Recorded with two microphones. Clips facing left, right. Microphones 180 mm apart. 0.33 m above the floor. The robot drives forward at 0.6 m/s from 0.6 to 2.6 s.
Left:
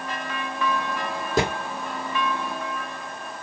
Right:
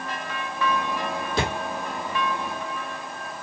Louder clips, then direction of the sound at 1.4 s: Left 4 dB; 45° left (ahead or behind).